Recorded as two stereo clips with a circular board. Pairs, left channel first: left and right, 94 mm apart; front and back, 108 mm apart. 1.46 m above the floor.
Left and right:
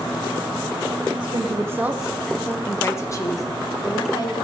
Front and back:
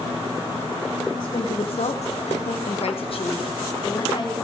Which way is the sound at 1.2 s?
50° right.